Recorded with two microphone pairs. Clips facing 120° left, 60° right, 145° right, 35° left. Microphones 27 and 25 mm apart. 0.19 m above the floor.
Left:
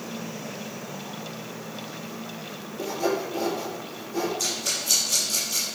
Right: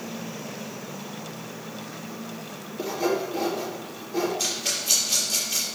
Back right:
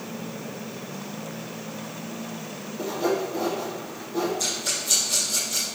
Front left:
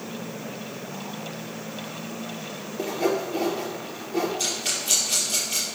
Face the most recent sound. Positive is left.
turn(degrees=0)